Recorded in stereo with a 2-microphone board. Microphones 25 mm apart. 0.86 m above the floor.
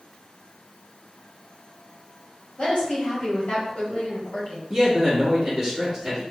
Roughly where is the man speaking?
Centre.